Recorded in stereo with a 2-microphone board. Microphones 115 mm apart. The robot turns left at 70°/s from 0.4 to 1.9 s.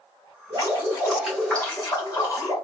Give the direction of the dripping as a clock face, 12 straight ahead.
4 o'clock.